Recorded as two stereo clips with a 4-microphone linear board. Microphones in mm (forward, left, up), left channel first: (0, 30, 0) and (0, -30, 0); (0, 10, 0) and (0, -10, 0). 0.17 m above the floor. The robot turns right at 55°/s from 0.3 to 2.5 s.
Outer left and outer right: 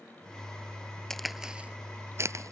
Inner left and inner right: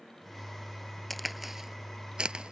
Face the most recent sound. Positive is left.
turn(degrees=-60)  # may be behind; listen again after turning